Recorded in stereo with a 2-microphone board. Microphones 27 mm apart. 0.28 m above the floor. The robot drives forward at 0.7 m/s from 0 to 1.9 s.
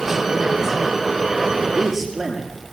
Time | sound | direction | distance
1.6 | a man speaking | 10° right (ahead or behind) | 5.5 m